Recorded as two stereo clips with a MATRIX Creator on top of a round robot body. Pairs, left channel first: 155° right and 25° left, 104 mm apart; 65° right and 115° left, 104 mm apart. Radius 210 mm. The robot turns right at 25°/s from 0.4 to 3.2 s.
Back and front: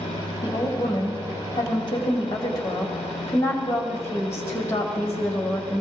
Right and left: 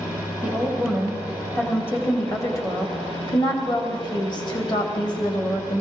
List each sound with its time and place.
0.4 s a woman speaking: 170° right, 2 m; by 5.8 s 100° right, 2 m